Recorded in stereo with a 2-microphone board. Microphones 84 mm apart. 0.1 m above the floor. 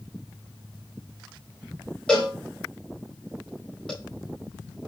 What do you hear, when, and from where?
2.1 s a cowbell: 10° left (ahead or behind), 3.5 m